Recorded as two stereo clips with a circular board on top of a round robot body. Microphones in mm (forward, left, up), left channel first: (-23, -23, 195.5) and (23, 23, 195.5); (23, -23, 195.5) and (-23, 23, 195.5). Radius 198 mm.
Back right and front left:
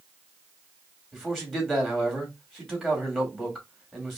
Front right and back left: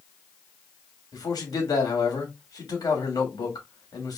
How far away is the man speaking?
About 2.5 m.